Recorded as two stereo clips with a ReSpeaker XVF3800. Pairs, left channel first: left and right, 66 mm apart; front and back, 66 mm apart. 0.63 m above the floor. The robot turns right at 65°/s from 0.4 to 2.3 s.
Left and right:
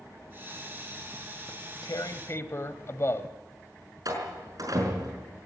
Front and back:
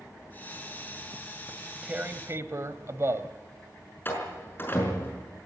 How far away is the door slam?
About 6 m.